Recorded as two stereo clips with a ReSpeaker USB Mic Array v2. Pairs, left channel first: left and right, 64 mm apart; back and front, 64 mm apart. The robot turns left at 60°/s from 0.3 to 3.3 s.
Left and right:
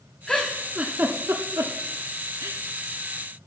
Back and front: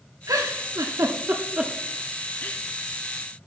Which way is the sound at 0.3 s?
10° left.